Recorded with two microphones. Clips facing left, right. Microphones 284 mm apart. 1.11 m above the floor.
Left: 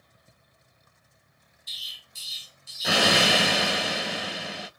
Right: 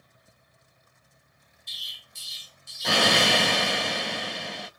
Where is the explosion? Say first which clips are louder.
Right 1 dB; 5° left (ahead or behind), 0.5 m.